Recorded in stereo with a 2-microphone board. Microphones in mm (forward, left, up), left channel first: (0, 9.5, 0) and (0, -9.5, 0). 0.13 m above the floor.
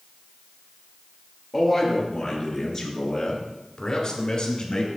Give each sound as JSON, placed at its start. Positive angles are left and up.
{"t": 1.5, "sound": "a man speaking", "side_deg": 5, "distance_m": 2.5}